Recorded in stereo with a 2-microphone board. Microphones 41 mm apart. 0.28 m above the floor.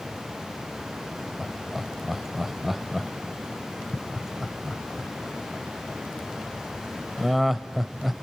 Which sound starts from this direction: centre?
Laughter, at 1.4 s.